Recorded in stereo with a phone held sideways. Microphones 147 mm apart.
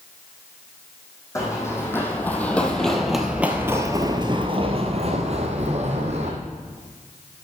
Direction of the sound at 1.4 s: 20° left (ahead or behind).